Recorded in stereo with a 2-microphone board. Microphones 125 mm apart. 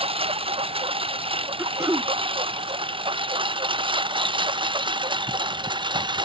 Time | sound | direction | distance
0.0 | a lawn mower | 50° right (ahead or behind) | ?
1.6 | throat clearing | 25° right (ahead or behind) | ?